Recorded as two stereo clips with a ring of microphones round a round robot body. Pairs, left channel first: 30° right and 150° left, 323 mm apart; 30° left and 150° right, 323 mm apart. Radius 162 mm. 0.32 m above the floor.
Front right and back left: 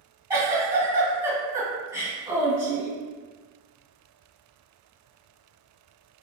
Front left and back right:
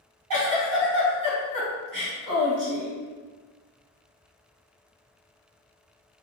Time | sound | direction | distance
0.3 | a giggle | 130° right | 1.9 m